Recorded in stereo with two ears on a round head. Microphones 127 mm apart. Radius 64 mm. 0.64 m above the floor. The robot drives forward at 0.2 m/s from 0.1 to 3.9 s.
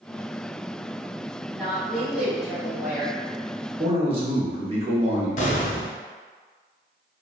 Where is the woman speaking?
5° right (ahead or behind), 1.7 m.